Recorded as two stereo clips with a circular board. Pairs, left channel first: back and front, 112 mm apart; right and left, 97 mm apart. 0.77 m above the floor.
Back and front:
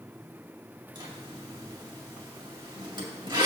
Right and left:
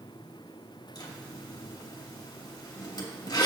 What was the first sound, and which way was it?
A zipper, 45° right.